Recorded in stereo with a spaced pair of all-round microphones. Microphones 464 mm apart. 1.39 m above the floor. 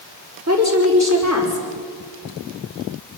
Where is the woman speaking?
35° right (ahead or behind), 5.5 m.